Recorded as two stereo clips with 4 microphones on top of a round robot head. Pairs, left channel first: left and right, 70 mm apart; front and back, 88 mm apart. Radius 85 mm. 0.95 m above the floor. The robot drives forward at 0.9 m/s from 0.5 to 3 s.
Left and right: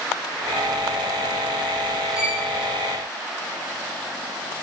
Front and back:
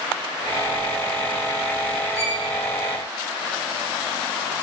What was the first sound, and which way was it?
A violin, 170° right.